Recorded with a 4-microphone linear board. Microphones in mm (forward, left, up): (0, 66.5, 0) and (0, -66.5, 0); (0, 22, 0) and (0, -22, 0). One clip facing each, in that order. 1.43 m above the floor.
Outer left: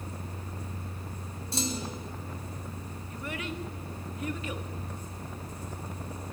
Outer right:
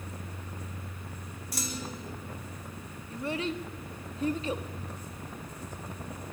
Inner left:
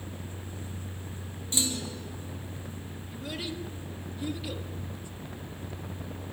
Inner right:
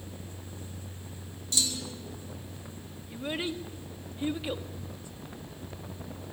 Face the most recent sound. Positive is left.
turn(degrees=-30)  # may be behind; listen again after turning